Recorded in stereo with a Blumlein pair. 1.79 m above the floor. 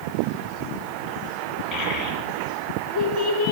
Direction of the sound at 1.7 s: 25° left.